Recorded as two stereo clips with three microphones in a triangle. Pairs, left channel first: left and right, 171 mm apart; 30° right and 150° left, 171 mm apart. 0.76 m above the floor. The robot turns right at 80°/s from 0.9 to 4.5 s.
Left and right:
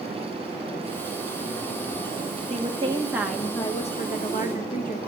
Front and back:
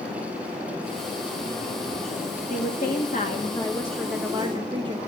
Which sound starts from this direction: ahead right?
A woman speaking, at 2.5 s.